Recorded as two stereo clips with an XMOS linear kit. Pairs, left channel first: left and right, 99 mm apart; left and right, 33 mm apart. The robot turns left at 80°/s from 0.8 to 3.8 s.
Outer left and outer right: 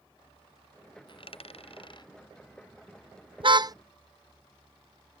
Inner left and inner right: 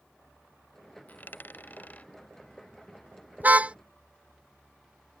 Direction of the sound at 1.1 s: 55° left (ahead or behind).